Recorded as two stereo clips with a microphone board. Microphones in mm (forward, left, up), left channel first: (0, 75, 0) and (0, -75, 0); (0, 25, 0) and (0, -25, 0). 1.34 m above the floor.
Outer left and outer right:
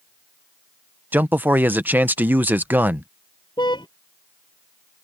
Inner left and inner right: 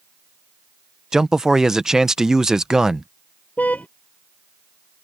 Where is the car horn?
30° left (ahead or behind).